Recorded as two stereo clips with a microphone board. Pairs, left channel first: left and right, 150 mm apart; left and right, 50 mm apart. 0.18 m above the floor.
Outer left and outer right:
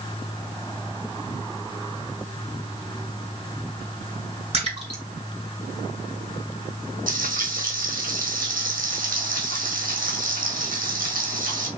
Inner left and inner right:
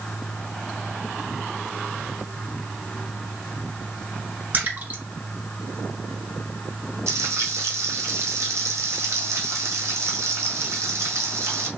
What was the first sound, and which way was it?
A splash, 40° right (ahead or behind).